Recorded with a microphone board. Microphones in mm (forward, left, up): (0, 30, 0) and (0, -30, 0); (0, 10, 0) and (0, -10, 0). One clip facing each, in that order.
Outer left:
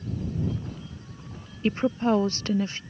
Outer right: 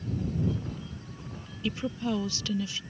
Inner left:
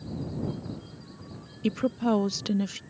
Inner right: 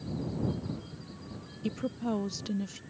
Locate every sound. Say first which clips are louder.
1.6 s a woman speaking: outer left 7 dB, inner left 7 dB; 40° left (ahead or behind)